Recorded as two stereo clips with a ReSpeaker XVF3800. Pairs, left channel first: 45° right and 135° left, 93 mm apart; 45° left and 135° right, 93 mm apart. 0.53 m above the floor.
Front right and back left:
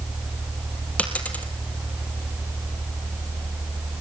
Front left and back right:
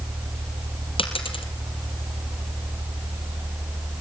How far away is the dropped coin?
About 3 m.